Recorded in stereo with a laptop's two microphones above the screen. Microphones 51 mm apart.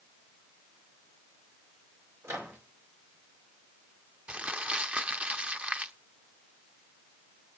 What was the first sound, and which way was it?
A microwave, 70° right (ahead or behind).